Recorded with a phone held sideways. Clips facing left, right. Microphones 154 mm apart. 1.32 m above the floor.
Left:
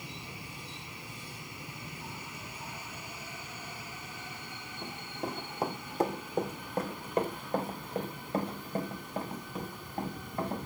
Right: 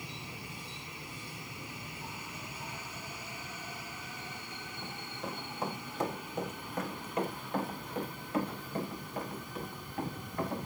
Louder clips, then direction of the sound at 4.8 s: Left 4 dB; 40° left (ahead or behind).